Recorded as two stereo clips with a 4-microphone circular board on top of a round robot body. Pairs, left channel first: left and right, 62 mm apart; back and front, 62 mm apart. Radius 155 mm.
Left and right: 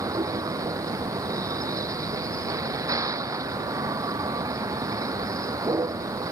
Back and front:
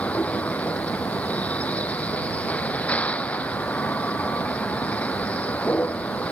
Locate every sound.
0.0 s a vehicle: 110° right